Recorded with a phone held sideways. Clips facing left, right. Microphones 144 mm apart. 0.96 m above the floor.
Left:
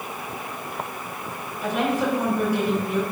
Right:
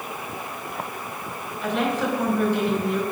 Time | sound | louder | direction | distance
1.6 | a woman speaking | left 1 dB | 10° left (ahead or behind) | 4 m